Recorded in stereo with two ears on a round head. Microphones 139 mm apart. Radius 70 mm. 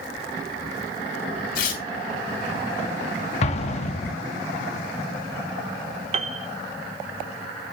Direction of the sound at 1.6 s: 65° left (ahead or behind).